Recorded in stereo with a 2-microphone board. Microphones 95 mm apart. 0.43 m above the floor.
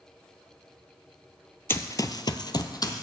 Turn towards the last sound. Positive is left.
turn(degrees=40)  # may be behind; listen again after turning